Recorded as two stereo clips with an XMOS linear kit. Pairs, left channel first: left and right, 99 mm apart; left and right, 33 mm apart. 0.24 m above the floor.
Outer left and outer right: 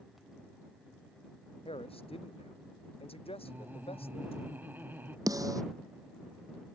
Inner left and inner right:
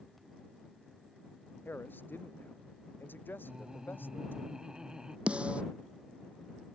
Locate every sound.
1.6 s a man speaking: 75° left (ahead or behind)
3.4 s laughter: 20° right (ahead or behind)
5.3 s a snare drum: 35° right (ahead or behind)